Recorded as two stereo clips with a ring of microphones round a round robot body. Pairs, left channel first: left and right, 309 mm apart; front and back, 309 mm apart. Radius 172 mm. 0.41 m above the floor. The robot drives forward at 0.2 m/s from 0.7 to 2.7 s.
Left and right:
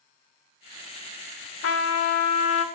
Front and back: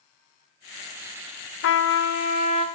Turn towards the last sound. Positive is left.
turn(degrees=70)